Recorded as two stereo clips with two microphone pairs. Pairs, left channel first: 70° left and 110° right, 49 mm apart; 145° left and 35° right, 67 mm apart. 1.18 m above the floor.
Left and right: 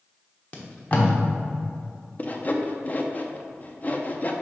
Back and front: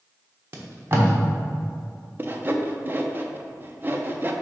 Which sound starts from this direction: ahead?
Tape being pulled, at 0.5 s.